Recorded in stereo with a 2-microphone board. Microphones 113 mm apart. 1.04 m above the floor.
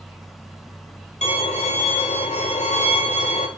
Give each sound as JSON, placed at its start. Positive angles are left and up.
{"t": 1.2, "sound": "a violin", "side_deg": 75, "distance_m": 2.5}